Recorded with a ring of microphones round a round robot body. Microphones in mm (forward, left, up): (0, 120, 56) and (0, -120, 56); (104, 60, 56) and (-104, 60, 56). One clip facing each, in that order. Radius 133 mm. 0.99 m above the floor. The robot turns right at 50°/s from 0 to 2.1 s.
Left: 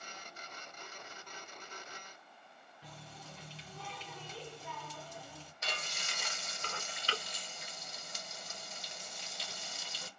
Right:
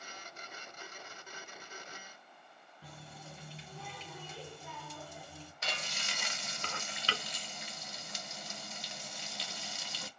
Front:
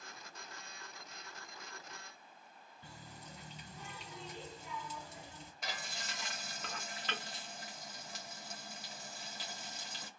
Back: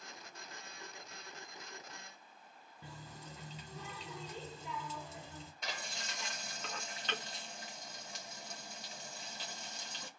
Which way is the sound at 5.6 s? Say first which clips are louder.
Right 1 dB, front 1 dB; 85° right.